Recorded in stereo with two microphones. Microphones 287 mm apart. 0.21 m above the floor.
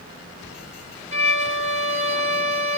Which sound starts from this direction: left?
A violin, at 1.1 s.